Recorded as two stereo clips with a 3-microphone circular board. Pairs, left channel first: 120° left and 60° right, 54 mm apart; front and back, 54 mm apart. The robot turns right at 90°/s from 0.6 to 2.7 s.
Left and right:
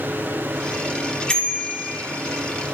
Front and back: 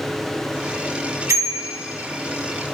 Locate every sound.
1.3 s a bicycle bell: 170° right, 4 m; by 1.8 s 120° right, 4 m